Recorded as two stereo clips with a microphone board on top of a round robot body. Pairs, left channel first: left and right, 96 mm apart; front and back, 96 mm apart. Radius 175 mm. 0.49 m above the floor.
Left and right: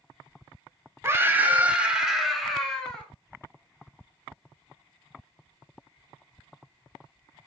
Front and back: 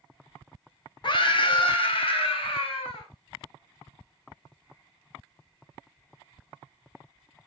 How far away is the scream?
About 1.5 m.